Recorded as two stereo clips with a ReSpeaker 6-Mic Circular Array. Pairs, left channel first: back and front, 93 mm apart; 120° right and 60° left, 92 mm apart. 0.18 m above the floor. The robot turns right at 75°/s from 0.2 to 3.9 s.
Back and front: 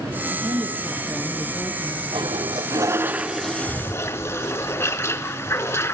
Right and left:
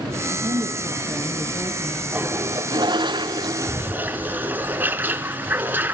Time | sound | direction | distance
0.3 | a woman speaking | 30° left | 3 m
2.1 | a toilet flushing | 10° right | 1.0 m